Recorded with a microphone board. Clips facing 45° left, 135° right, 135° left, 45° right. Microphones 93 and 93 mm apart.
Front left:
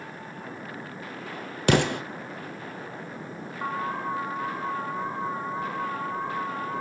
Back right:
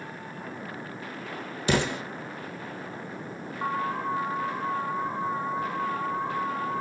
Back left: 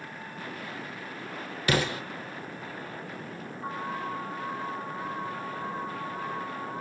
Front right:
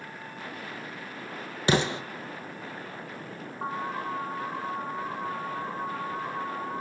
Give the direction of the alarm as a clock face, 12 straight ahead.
1 o'clock.